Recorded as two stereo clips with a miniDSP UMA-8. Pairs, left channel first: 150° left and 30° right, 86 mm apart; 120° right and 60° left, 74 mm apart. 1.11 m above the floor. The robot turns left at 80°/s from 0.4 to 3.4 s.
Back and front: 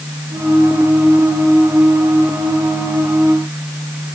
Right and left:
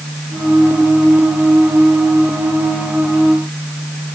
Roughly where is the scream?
I don't hear a scream.